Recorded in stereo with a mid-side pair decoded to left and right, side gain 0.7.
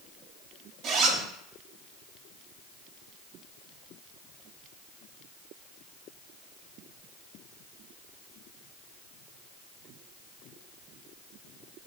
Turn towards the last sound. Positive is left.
turn(degrees=-50)